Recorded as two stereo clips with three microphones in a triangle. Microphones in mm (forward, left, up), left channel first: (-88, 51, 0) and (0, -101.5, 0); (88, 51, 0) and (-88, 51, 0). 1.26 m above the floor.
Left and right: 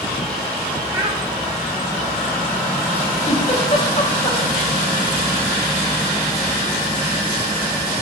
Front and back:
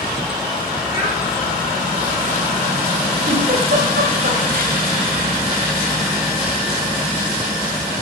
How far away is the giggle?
About 1.9 m.